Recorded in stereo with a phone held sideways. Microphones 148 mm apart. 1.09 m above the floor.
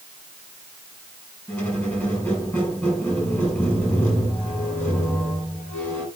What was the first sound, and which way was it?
A squeak, 15° left (ahead or behind).